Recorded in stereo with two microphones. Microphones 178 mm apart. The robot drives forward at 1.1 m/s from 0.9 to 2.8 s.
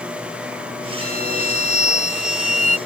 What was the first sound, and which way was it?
A violin, 55° right (ahead or behind).